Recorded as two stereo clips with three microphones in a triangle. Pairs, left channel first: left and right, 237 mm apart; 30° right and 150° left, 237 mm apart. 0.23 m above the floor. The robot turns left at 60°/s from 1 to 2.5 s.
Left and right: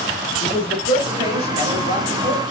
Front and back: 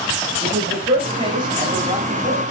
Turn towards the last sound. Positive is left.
turn(degrees=45)